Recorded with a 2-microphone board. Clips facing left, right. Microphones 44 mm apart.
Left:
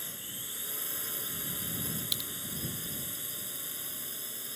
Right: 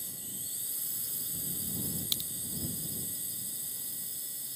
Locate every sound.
0.0 s a drone: 50° left (ahead or behind)
2.1 s a crack: 5° left (ahead or behind)